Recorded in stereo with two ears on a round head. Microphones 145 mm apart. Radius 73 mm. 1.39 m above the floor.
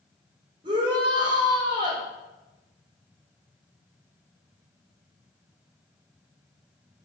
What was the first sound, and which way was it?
A shout, 30° right (ahead or behind).